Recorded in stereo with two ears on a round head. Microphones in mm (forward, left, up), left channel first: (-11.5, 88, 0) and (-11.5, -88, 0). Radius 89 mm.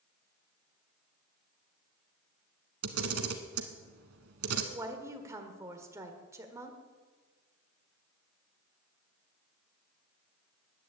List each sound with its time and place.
2.8 s a camera shutter: 85° right, 1.4 m
4.7 s a woman speaking: 15° right (ahead or behind), 1.4 m